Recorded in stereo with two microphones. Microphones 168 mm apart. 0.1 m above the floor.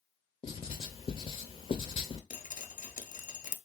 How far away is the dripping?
About 0.7 m.